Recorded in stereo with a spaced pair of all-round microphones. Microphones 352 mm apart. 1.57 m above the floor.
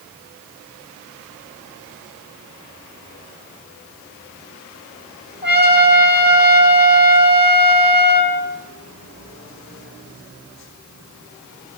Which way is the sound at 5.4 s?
65° left (ahead or behind).